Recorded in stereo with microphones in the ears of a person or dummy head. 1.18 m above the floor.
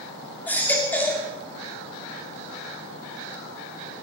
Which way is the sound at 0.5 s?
10° left (ahead or behind).